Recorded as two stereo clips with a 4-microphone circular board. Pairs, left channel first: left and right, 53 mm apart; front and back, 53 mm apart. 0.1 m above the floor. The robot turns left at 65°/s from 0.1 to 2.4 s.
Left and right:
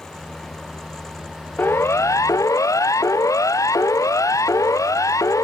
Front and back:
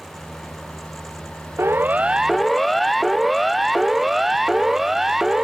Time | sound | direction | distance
1.6 | a siren | 140° left | ?